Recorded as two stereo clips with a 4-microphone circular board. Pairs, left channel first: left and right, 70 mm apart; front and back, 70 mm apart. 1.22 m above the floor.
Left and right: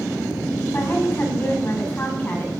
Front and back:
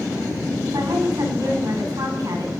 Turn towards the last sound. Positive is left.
turn(degrees=145)